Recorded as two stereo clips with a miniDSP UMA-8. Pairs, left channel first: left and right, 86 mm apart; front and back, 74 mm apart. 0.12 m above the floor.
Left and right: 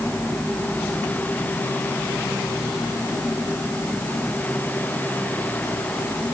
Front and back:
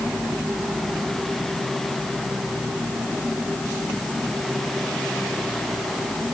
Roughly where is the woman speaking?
No woman speaking in this recording.